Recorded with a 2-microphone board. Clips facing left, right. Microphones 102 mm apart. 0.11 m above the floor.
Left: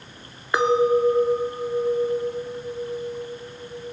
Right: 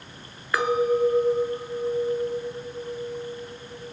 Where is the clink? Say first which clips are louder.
Left 3 dB; 20° left (ahead or behind), 0.9 m.